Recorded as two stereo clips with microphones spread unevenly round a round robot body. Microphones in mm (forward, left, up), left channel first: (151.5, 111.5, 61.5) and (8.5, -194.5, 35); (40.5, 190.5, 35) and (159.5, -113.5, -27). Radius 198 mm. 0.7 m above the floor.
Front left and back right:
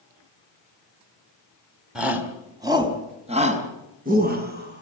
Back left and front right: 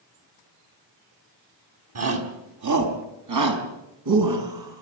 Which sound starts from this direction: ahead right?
A shout, at 1.9 s.